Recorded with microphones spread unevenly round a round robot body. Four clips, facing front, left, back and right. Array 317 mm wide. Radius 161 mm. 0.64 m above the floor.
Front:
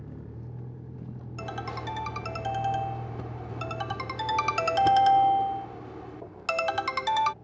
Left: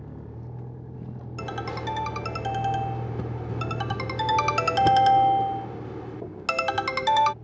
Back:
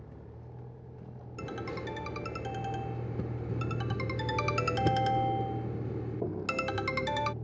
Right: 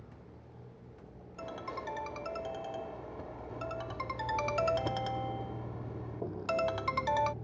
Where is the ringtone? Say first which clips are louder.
Left 8 dB, front 2 dB; 130° left.